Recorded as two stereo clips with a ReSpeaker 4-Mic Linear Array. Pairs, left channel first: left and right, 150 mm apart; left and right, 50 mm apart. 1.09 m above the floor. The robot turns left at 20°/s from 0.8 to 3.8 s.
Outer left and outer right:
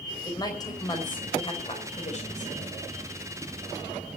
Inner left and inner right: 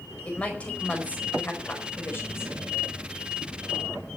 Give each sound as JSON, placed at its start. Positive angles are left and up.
{"t": 0.2, "sound": "a woman speaking", "azimuth_deg": 155, "distance_m": 4.5}